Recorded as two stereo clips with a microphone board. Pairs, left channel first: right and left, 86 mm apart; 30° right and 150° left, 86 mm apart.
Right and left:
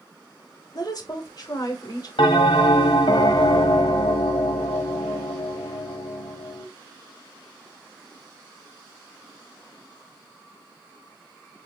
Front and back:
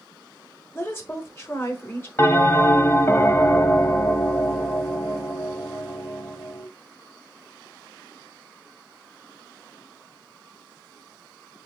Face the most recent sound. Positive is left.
turn(degrees=-90)